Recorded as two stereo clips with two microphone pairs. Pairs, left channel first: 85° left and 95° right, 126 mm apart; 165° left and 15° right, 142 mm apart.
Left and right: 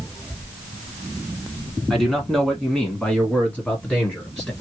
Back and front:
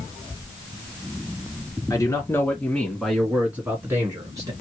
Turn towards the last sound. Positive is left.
turn(degrees=20)